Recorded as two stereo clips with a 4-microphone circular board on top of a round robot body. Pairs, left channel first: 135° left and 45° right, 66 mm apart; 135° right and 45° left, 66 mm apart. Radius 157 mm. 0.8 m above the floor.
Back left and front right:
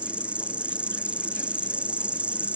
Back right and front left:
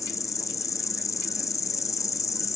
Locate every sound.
0.0 s an insect: 115° right, 1.4 m